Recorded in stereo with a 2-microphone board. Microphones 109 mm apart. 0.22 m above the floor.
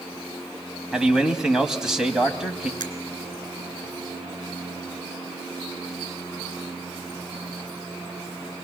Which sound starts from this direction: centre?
A man speaking, at 0.9 s.